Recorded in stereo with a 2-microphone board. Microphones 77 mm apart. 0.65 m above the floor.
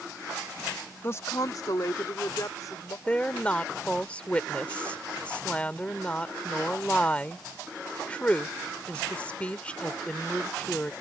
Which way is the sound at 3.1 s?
15° left (ahead or behind).